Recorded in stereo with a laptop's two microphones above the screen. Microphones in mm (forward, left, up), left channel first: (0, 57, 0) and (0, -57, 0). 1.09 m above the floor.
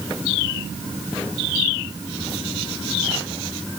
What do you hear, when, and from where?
Only background noise.